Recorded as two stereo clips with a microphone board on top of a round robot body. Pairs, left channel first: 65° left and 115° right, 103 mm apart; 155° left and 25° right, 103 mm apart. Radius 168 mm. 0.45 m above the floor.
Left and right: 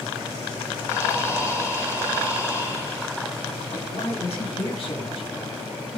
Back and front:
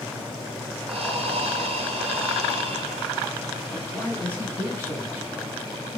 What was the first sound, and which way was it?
Breathing, 5° left.